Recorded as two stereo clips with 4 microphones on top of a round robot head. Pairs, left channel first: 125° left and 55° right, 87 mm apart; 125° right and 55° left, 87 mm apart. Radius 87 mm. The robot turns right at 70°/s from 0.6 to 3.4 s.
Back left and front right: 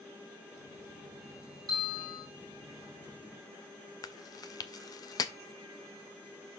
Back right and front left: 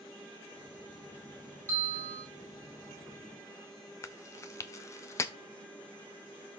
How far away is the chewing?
About 0.5 m.